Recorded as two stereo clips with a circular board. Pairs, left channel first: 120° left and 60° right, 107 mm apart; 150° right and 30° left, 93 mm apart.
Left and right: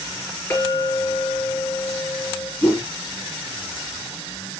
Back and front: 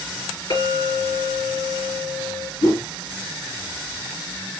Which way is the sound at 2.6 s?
170° right.